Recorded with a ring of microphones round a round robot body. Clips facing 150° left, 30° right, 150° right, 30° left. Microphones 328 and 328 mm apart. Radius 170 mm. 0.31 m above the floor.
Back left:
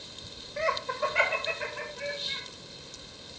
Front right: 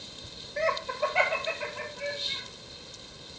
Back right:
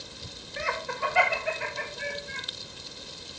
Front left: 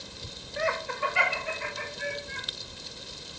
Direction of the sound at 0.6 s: 145° right.